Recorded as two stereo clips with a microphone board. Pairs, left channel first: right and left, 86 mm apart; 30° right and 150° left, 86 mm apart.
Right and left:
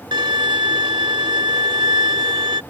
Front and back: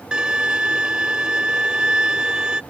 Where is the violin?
70° left.